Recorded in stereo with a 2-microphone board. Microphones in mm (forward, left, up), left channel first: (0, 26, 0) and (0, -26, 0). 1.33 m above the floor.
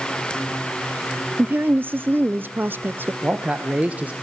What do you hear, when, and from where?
1.4 s a woman speaking: 45° right (ahead or behind), 0.6 m
3.2 s a man speaking: 30° right (ahead or behind), 0.9 m